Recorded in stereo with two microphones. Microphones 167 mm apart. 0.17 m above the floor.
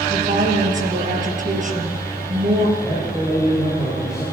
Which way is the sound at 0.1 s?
50° right (ahead or behind).